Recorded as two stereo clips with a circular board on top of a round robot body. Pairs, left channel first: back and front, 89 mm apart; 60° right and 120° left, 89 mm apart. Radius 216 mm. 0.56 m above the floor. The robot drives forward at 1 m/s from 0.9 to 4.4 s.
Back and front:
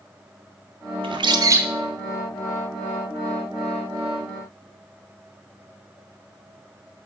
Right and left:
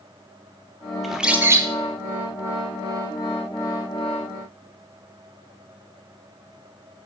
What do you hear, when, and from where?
1.0 s a bird: 30° left, 0.9 m; by 1.7 s 75° left, 0.5 m